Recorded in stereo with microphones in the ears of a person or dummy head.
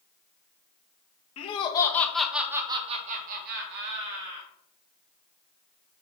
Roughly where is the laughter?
Left.